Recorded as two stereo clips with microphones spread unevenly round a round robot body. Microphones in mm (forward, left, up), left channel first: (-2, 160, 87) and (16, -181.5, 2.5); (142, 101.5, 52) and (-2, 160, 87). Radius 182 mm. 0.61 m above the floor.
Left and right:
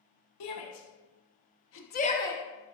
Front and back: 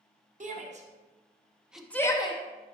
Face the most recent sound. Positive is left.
turn(degrees=-5)